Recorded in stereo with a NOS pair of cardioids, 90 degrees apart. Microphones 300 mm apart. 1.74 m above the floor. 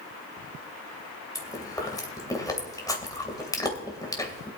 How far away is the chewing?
About 2.5 m.